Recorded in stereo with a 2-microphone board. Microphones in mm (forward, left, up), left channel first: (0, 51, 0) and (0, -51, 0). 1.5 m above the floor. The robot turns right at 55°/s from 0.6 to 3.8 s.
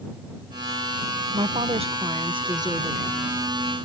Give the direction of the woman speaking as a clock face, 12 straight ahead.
4 o'clock.